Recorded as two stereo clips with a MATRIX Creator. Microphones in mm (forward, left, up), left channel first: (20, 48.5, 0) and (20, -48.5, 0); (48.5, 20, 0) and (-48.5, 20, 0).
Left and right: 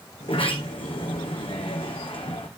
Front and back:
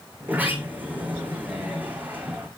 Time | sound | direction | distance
0.2 | a sliding door | 110° left | 1.4 m